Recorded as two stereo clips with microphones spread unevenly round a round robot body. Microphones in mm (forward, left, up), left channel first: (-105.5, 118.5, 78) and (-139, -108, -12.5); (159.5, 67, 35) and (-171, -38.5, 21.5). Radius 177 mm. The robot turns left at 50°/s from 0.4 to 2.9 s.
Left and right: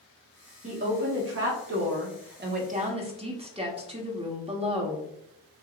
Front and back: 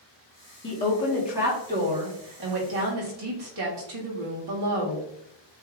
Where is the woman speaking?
45° right, 1.6 m; by 5.1 s 155° right, 1.6 m.